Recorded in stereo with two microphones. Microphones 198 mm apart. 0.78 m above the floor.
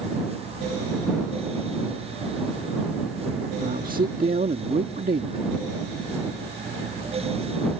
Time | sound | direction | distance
3.6 | a man speaking | 45° right (ahead or behind) | ?